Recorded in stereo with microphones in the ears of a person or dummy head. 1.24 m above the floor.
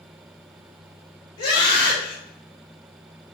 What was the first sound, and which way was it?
A scream, 30° left (ahead or behind).